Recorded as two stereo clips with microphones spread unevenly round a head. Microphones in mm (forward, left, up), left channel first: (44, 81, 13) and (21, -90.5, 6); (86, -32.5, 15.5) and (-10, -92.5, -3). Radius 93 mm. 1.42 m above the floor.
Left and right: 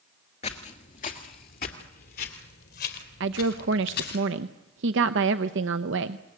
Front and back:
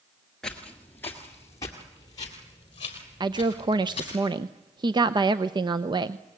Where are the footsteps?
100° left, 1.7 m; by 4.2 s 75° left, 3.5 m.